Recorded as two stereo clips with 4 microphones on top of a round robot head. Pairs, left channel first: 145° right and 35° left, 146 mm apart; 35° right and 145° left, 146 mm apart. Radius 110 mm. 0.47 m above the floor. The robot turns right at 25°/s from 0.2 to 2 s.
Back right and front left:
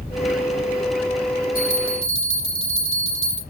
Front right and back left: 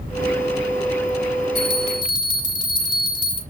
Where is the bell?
25° right, 4 m; by 3.4 s 15° right, 4 m.